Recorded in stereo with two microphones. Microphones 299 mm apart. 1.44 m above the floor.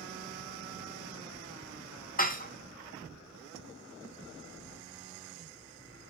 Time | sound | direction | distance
2.2 | dishes clattering | 30° left (ahead or behind) | 0.6 m